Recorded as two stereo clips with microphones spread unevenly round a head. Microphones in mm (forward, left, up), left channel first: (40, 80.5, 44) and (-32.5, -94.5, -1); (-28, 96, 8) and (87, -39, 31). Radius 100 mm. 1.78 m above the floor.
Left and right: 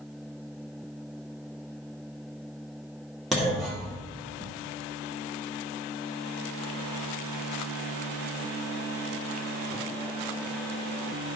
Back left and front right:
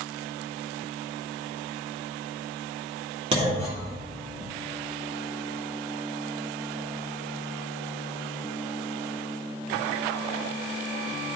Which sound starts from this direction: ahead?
A clunk, at 3.3 s.